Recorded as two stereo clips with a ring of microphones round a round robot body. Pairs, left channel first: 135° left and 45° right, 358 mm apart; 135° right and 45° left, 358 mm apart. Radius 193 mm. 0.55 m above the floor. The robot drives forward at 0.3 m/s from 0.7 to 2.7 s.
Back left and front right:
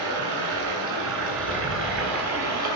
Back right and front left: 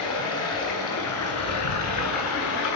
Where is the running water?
80° right, 3 m; by 2.8 s 95° right, 3 m.